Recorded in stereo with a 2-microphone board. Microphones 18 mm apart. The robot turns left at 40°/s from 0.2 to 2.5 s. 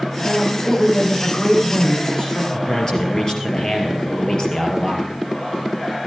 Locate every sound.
0.2 s a woman speaking: 150° right, 8.5 m; by 2.4 s 120° left, 8.5 m
2.5 s a man speaking: 30° left (ahead or behind), 3.5 m